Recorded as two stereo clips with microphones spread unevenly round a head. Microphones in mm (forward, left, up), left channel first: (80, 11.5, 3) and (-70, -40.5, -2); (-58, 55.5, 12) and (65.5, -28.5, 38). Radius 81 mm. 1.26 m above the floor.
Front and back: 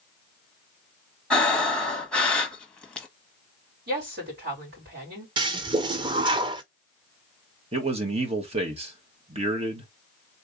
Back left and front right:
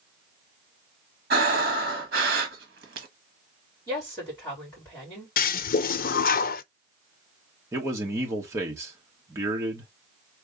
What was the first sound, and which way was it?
Breathing, 65° right.